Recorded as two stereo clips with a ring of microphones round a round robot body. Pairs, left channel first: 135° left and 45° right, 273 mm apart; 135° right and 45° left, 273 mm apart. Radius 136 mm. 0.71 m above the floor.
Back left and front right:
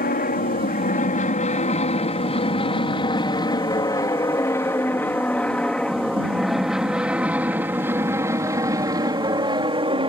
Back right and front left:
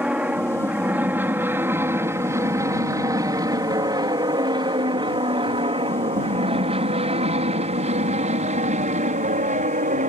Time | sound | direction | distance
0.0 | an aircraft | 125° left | ?